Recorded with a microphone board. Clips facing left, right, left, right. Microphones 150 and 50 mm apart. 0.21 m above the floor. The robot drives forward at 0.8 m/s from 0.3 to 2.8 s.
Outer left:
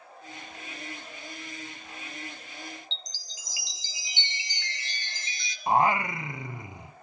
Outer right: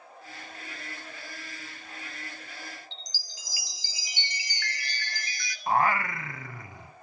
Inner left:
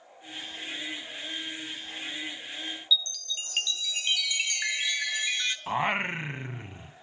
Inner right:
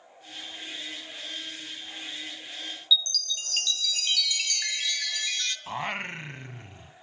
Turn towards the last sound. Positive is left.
turn(degrees=20)  # may be behind; listen again after turning